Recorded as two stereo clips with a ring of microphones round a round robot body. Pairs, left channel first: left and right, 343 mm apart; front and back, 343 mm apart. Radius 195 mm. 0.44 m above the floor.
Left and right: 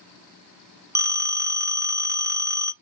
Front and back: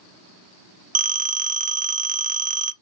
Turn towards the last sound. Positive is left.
turn(degrees=-160)